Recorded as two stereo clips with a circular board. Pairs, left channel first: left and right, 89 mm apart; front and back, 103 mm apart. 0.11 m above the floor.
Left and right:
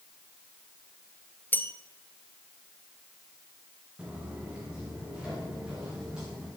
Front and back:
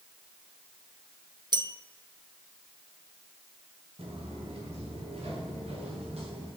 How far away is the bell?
About 0.5 m.